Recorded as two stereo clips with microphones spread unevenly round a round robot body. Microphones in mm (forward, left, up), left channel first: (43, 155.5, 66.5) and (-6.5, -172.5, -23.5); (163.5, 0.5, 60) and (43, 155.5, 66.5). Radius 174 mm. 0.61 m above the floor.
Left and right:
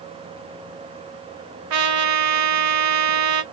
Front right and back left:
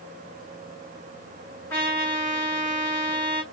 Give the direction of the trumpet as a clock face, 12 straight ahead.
4 o'clock.